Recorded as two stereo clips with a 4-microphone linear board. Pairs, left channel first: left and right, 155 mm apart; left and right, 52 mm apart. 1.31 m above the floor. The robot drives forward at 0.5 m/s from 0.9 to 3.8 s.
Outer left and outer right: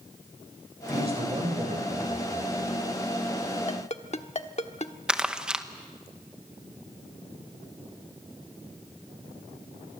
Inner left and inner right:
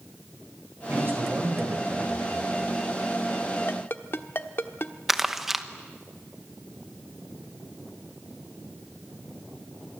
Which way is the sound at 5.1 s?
5° right (ahead or behind).